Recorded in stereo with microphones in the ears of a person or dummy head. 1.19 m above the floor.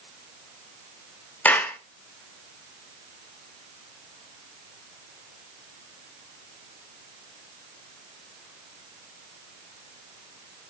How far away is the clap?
About 1.7 m.